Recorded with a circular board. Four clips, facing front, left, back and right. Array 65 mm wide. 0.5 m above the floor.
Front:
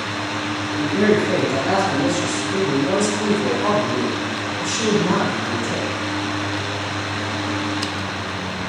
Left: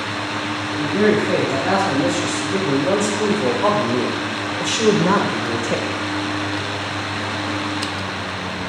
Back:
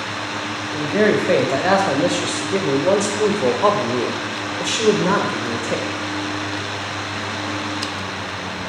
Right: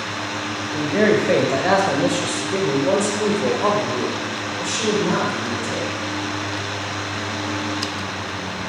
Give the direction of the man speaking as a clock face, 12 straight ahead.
5 o'clock.